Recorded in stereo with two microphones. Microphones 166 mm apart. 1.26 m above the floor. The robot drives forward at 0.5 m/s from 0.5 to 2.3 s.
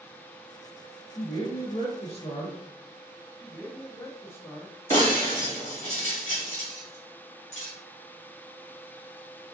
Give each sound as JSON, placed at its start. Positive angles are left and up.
{"t": 1.1, "sound": "a man speaking", "side_deg": 25, "distance_m": 1.4}
{"t": 3.4, "sound": "a man speaking", "side_deg": 15, "distance_m": 0.8}
{"t": 4.9, "sound": "breaking glass", "side_deg": 45, "distance_m": 1.9}